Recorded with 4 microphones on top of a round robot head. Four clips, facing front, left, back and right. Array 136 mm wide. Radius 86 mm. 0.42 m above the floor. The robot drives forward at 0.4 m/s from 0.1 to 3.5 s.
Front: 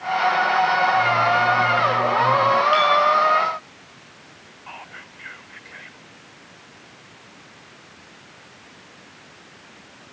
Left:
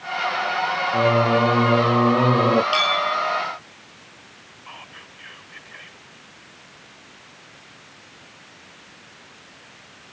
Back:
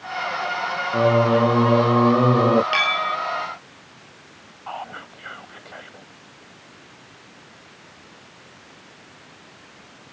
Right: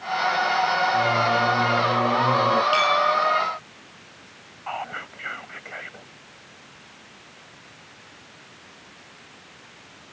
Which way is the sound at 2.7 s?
170° left.